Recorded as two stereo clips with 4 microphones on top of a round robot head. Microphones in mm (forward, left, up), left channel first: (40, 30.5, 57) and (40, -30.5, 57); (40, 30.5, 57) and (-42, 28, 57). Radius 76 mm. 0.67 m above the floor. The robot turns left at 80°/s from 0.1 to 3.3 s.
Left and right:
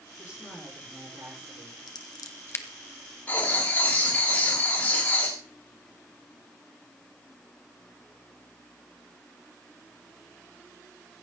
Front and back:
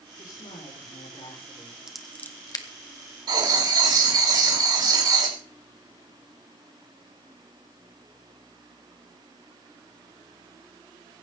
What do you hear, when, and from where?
0.2 s a woman speaking: 40° left, 8 m; by 1.9 s 95° right, 8 m
1.9 s scissors: 100° left, 1.6 m; by 2.6 s 35° left, 1.6 m
3.3 s writing: 155° left, 3.5 m; by 5.4 s 150° left, 3.5 m